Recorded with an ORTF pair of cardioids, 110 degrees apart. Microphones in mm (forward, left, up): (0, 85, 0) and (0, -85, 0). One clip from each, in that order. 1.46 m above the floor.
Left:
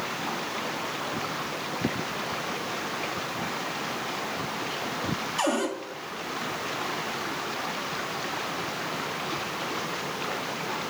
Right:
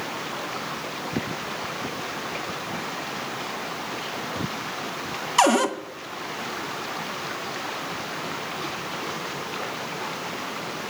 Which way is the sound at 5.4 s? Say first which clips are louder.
Right 9 dB; 65° right.